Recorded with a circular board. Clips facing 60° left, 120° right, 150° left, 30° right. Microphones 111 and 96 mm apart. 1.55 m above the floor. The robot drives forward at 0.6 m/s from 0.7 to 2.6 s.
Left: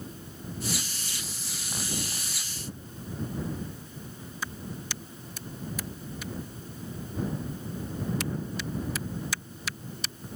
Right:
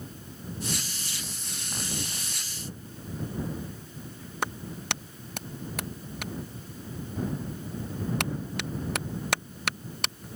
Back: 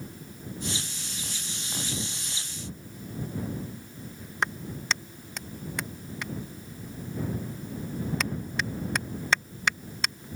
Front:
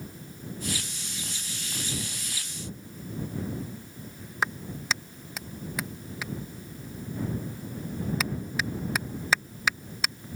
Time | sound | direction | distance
4.4 | a clap | 115° right | ?